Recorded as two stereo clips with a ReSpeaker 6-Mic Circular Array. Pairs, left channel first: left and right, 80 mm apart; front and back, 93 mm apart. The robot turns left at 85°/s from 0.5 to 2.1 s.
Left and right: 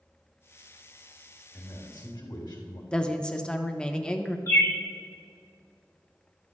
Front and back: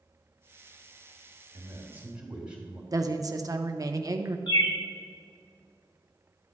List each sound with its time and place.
1.5 s a man speaking: 150° left, 3 m; by 2.8 s 100° left, 3 m
2.9 s a woman speaking: 160° left, 0.7 m
4.5 s a bird: 35° left, 1.3 m